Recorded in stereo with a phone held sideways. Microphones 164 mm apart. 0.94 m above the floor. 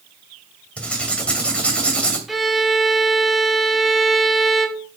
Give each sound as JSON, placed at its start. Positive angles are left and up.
{"t": 0.8, "sound": "writing", "side_deg": 5, "distance_m": 2.5}
{"t": 2.3, "sound": "a violin", "side_deg": 0, "distance_m": 0.8}